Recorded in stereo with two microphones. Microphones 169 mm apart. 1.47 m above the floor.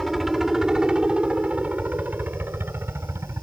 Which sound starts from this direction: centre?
A helicopter, at 0.0 s.